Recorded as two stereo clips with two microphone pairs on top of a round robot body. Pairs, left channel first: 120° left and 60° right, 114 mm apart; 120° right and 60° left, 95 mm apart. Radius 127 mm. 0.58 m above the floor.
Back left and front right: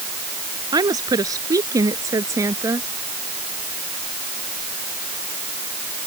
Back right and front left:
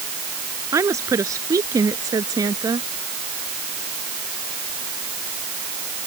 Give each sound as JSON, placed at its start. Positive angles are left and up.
{"t": 0.7, "sound": "a woman speaking", "azimuth_deg": 0}